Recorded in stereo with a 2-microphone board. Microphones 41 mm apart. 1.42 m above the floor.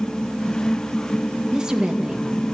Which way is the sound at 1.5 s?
20° right (ahead or behind).